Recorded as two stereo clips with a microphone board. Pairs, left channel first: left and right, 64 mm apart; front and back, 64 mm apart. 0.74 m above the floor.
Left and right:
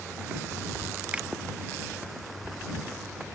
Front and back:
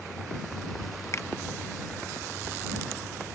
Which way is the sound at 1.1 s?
25° right.